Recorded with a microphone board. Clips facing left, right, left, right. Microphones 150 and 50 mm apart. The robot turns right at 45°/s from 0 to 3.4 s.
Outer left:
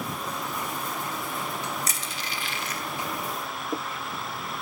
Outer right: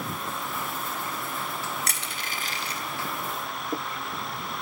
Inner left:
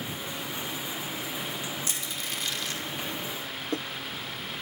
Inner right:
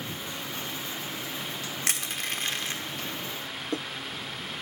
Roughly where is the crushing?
Right.